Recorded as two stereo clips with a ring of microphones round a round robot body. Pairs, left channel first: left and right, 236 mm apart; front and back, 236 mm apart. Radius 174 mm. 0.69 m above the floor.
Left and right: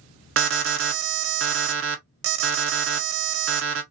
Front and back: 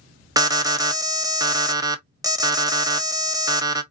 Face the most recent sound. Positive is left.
turn(degrees=-105)